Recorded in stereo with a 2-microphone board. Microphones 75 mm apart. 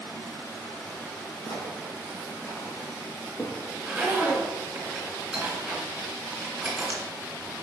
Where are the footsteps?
65° left (ahead or behind), 2.5 m; by 3.6 s 50° left (ahead or behind), 3.5 m.